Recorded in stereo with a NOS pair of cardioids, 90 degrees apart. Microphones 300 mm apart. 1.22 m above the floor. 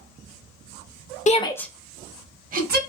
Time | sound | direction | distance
1.3 | a shout | 25° left | 0.6 m